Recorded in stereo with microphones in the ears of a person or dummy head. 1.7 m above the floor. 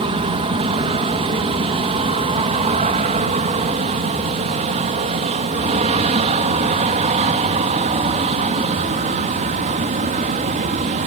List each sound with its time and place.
0.0 s an aircraft: 25° right (ahead or behind); by 11.1 s 35° right (ahead or behind)